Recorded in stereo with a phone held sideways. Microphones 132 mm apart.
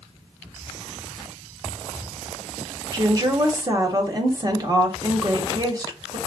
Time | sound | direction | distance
2.9 | a woman speaking | 30° right (ahead or behind) | 0.8 m